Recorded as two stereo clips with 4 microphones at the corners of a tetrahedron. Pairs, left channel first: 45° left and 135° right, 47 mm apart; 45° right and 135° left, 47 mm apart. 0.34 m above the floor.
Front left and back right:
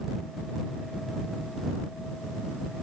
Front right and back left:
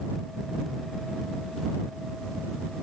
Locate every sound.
Only background noise.